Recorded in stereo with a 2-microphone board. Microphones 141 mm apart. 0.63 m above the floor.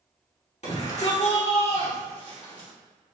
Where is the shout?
55° left (ahead or behind), 1.7 m; by 2.7 s 30° left (ahead or behind), 2 m.